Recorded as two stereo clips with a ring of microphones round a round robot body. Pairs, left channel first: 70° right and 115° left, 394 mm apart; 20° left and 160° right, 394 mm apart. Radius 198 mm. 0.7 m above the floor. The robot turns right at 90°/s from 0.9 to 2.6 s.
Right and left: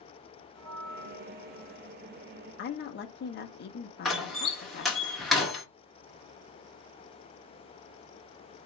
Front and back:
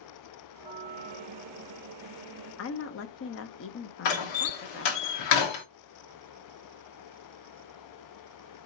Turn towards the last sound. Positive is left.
turn(degrees=20)